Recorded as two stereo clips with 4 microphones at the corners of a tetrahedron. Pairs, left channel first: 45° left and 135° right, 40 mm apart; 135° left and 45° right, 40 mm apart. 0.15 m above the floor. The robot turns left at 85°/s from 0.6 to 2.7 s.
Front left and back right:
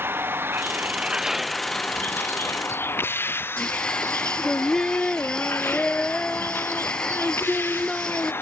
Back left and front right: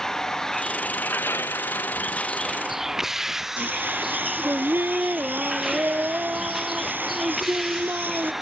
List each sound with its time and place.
0.0 s a vehicle: 150° right; by 8.4 s 40° left
3.6 s singing: 20° right